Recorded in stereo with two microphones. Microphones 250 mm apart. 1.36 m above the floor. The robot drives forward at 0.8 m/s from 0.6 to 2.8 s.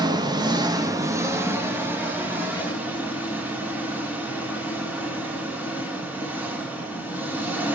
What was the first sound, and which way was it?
An engine running, 15° right (ahead or behind).